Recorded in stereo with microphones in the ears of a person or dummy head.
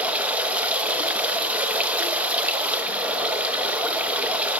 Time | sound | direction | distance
0.0 | running water | 10° right (ahead or behind) | 0.8 m